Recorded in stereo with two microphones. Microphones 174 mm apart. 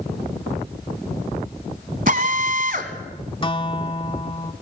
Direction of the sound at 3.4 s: 30° left (ahead or behind).